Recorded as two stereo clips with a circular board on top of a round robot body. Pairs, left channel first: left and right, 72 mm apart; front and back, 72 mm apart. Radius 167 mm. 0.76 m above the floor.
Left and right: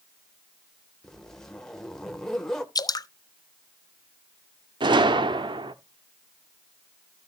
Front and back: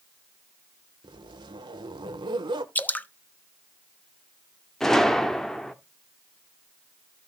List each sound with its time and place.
1.0 s a zipper: 175° left, 0.8 m
2.8 s dripping: 65° left, 1.0 m
4.8 s a gunshot: 85° right, 0.7 m